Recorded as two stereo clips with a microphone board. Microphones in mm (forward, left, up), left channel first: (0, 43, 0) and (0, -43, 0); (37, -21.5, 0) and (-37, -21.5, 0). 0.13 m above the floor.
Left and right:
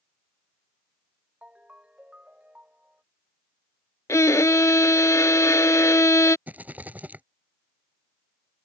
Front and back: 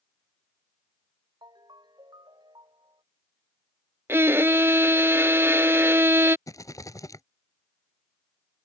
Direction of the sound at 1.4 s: 165° right.